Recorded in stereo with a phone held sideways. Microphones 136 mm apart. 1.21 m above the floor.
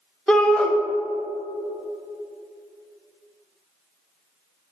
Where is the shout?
5° left (ahead or behind), 1.0 m.